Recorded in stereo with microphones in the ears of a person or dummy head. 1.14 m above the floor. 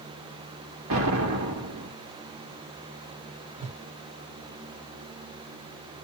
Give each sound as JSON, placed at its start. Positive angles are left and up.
{"t": 0.9, "sound": "an explosion", "side_deg": -75, "distance_m": 1.2}
{"t": 3.6, "sound": "a whoosh", "side_deg": -25, "distance_m": 0.9}